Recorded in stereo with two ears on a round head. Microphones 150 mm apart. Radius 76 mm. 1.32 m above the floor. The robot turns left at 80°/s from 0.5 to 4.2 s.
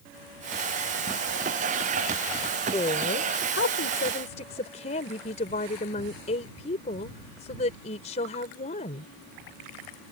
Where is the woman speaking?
160° left; by 9.1 s 40° left.